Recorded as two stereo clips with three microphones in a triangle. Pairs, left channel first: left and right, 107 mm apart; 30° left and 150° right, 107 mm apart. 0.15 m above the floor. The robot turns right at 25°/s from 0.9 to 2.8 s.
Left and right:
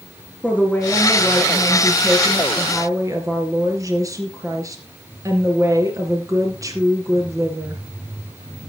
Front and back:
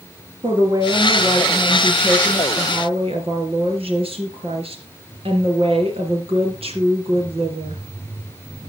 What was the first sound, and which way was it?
A woman speaking, 165° left.